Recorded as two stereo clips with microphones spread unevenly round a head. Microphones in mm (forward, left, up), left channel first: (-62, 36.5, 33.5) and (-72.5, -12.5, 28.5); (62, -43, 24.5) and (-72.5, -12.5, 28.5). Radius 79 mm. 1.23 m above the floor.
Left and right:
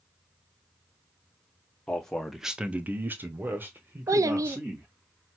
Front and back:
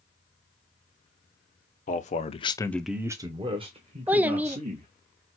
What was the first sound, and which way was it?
A man speaking, 5° right.